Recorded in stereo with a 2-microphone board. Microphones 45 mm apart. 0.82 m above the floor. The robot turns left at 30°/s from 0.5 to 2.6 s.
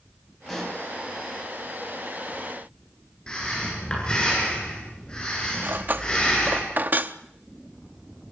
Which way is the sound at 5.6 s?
45° right (ahead or behind).